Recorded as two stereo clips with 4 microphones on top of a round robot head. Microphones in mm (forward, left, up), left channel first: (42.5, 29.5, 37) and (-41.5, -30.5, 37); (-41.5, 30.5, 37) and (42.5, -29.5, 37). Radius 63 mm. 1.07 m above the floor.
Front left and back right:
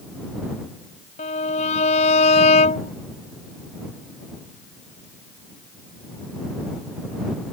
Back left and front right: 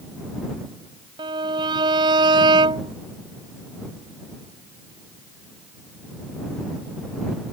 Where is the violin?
15° left.